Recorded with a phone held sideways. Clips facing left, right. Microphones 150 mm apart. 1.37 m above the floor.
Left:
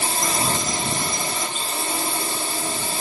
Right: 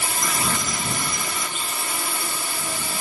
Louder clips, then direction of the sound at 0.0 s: Left 3 dB; 30° left (ahead or behind).